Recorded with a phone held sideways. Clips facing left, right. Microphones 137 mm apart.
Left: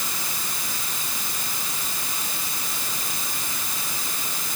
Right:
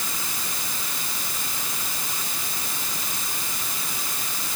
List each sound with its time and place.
Only background noise.